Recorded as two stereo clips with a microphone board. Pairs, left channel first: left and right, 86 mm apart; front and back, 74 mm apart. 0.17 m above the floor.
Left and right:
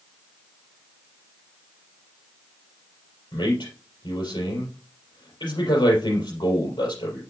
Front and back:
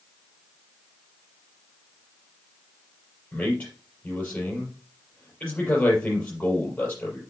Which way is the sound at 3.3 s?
70° left.